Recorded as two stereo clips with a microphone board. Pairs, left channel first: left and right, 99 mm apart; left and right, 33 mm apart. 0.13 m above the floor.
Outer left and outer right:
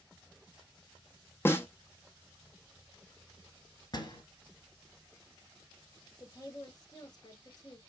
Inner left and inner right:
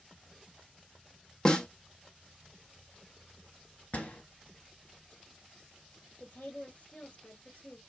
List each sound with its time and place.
1.4 s a snare drum: 25° left (ahead or behind), 1.0 m
3.9 s a door slam: 45° left (ahead or behind), 1.5 m
6.2 s a woman speaking: 40° left (ahead or behind), 1.5 m